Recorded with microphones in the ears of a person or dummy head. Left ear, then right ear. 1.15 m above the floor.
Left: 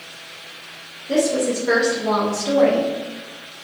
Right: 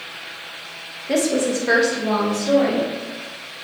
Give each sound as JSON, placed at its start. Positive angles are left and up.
{"t": 1.1, "sound": "a woman speaking", "side_deg": -50, "distance_m": 0.6}